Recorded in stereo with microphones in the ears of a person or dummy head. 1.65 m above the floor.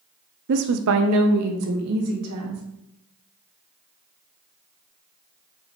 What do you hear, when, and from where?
0.5 s a woman speaking: 50° right (ahead or behind), 0.5 m; by 2.6 s 80° right, 2.5 m